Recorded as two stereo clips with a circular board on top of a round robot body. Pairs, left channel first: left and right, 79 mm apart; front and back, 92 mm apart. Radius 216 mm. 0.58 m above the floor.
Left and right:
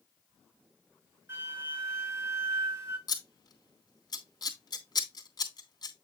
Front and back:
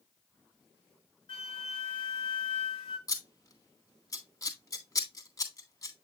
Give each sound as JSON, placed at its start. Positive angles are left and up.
{"t": 1.3, "sound": "a flute", "azimuth_deg": -30, "distance_m": 4.0}
{"t": 3.1, "sound": "scissors", "azimuth_deg": 50, "distance_m": 3.0}